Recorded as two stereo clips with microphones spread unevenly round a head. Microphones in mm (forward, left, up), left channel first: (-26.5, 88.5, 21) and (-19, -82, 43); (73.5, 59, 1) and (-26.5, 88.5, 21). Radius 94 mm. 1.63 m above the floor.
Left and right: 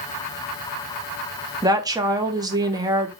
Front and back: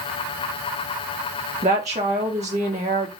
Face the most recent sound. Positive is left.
turn(degrees=-155)